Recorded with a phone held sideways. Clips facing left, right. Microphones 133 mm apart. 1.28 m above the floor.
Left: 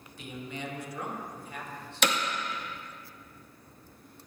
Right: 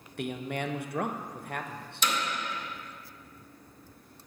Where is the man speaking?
65° right (ahead or behind), 0.6 m.